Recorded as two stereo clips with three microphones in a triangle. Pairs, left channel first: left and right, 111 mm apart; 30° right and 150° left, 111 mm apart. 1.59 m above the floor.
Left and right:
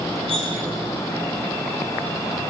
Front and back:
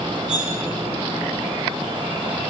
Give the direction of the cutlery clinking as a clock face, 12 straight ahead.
2 o'clock.